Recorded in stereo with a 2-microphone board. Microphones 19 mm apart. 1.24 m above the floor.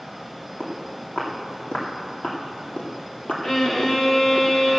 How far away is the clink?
I don't hear a clink.